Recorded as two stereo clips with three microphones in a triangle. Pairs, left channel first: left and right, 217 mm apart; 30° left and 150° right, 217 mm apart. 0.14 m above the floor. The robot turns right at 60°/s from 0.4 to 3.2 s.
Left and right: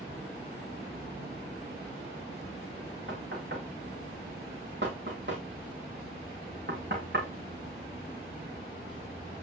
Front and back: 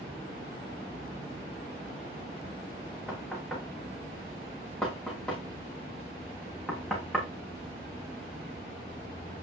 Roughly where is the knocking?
Ahead right.